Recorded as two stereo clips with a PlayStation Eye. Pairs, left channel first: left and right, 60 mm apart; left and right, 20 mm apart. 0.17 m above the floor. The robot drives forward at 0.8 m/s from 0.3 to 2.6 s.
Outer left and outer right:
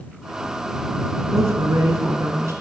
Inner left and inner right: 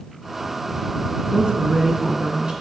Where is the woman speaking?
45° right (ahead or behind), 2 m.